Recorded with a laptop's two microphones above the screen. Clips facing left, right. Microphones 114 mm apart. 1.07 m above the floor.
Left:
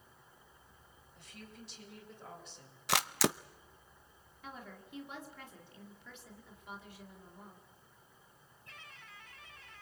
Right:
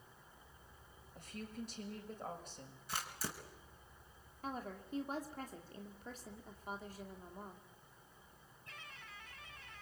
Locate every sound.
1.1 s a woman speaking: 45° right (ahead or behind), 6.5 m
2.9 s a camera shutter: 85° left, 0.6 m
4.4 s a woman speaking: 40° right (ahead or behind), 2.5 m